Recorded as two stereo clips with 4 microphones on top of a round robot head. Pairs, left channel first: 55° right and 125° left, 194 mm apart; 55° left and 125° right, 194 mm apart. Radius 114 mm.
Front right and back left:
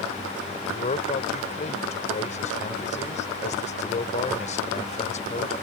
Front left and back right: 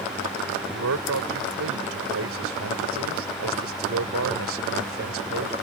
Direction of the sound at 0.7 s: 110° right.